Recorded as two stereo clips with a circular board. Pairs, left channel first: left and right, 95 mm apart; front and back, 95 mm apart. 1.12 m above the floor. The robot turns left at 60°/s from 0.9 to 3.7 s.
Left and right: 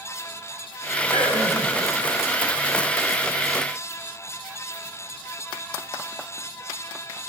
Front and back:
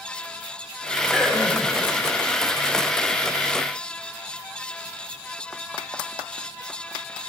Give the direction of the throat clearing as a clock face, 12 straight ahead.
9 o'clock.